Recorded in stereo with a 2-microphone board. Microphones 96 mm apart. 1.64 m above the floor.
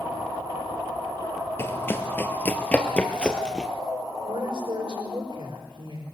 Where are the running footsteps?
25° left (ahead or behind), 1.7 m; by 3.7 s 5° left (ahead or behind), 2 m.